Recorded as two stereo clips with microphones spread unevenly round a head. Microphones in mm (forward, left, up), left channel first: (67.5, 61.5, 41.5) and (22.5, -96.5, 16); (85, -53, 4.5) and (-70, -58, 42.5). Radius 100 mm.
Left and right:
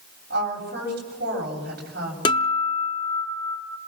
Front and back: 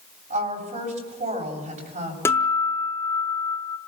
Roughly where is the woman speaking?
Behind right.